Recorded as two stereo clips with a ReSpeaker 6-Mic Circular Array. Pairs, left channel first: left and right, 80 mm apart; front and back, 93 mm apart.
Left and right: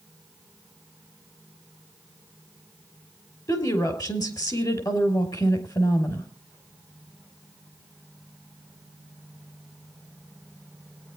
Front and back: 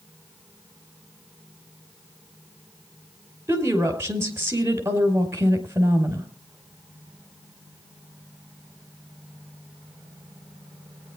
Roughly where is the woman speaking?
Behind left.